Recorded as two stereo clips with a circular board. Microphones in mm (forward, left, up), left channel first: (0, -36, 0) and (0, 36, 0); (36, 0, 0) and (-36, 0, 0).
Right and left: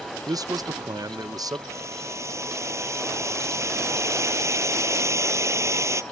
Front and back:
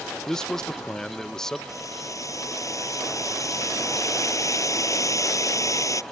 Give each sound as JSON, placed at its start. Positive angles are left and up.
{"t": 0.3, "sound": "a man speaking", "azimuth_deg": 80}
{"t": 1.7, "sound": "boiling", "azimuth_deg": 40}